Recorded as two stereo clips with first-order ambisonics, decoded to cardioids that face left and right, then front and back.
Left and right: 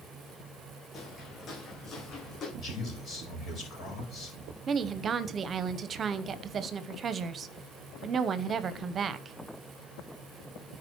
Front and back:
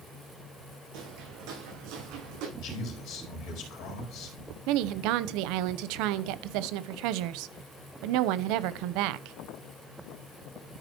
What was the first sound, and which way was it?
Footsteps, 155° left.